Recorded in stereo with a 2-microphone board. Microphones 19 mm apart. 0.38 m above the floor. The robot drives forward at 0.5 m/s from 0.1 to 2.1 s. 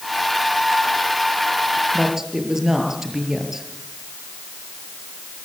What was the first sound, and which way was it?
A woman speaking, 25° right (ahead or behind).